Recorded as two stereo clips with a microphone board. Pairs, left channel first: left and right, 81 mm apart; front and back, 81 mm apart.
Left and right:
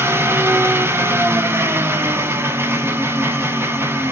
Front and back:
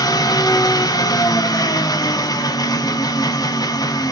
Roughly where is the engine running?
Ahead right.